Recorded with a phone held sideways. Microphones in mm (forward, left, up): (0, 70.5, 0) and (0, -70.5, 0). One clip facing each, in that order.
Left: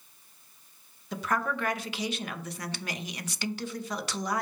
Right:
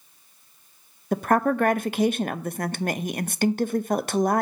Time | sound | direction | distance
1.1 | a woman speaking | 55° right (ahead or behind) | 0.6 m